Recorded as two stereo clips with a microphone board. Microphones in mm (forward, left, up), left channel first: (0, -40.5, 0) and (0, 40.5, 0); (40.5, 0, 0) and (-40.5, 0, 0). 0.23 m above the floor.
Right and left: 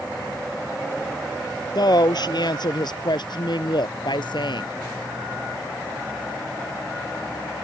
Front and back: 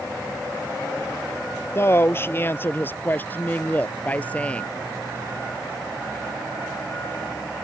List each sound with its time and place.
1.8 s a woman speaking: 60° right; by 4.7 s 75° right